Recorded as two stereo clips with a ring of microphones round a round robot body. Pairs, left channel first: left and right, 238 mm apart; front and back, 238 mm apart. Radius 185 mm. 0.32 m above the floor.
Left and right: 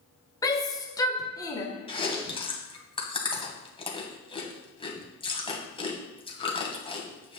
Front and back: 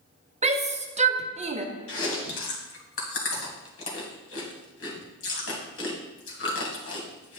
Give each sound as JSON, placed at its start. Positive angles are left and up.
{"t": 0.4, "sound": "a shout", "azimuth_deg": 150, "distance_m": 1.1}
{"t": 1.9, "sound": "chewing", "azimuth_deg": 20, "distance_m": 2.0}